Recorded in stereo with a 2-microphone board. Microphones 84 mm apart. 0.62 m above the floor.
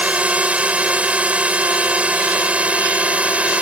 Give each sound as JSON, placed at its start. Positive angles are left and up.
{"t": 0.0, "sound": "a drone", "side_deg": -15}